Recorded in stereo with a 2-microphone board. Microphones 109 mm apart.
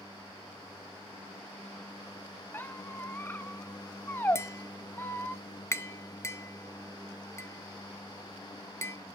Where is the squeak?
20° left (ahead or behind), 0.9 m.